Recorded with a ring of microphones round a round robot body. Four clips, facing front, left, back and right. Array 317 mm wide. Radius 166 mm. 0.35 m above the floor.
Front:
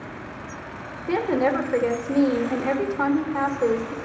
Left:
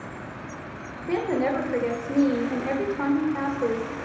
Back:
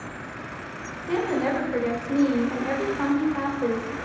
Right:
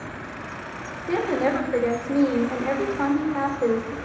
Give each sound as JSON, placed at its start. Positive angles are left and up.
{"t": 1.1, "sound": "a woman speaking", "azimuth_deg": 0, "distance_m": 1.4}